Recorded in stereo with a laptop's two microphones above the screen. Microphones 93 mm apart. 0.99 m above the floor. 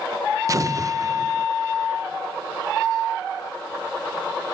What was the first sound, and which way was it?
An explosion, 35° right (ahead or behind).